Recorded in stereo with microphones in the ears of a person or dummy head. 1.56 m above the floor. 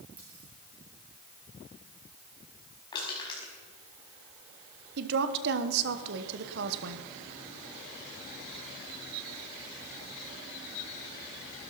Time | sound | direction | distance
0.2 | a dropped coin | 10° right (ahead or behind) | 7 m
2.9 | crushing | 25° left (ahead or behind) | 5 m
5.0 | a woman speaking | 65° right (ahead or behind) | 1.1 m